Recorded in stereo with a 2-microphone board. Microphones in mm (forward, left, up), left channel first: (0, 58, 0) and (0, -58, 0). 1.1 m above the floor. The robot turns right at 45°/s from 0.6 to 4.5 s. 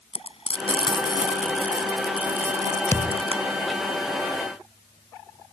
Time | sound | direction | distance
0.1 | frying | 60° left (ahead or behind) | ?
2.9 | a thud | 25° left (ahead or behind) | ?